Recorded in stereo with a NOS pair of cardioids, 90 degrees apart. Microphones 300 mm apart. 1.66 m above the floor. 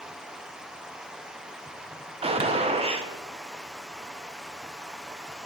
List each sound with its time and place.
0.0 s running water: straight ahead, 0.9 m
2.2 s a gunshot: 20° right, 1.1 m